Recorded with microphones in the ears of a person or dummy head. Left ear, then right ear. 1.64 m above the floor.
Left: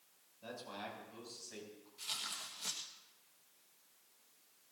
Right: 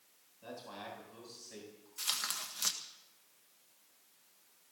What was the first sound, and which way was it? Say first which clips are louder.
A man speaking: even; 5° right (ahead or behind).